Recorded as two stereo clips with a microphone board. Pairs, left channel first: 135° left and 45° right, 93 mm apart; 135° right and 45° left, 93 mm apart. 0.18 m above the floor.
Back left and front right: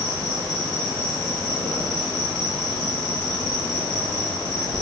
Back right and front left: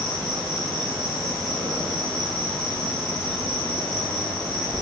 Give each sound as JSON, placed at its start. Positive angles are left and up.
{"t": 0.0, "sound": "an insect", "azimuth_deg": 165, "distance_m": 1.9}